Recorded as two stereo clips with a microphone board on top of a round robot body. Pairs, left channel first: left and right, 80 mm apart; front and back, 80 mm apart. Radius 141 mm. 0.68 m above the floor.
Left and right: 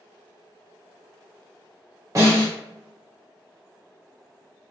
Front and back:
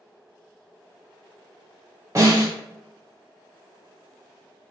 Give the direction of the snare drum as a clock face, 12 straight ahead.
4 o'clock.